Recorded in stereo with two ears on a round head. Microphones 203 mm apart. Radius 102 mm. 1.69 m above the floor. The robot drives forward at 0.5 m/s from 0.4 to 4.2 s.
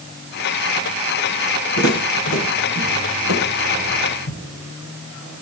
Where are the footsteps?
65° left (ahead or behind), 6.5 m; by 4.4 s 55° left (ahead or behind), 9 m.